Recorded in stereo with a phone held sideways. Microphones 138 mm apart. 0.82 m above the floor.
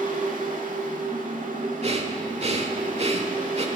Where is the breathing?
50° right (ahead or behind), 1.2 m.